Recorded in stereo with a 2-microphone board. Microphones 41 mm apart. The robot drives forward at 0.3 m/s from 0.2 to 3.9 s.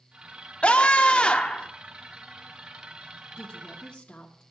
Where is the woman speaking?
25° left (ahead or behind), 1.3 m.